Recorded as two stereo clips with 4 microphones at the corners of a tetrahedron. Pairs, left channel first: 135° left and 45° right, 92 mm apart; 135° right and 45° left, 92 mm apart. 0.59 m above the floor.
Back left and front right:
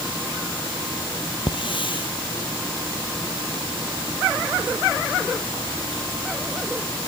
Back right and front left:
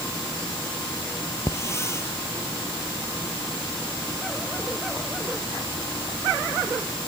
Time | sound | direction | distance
1.5 | a hiss | 165° left | ?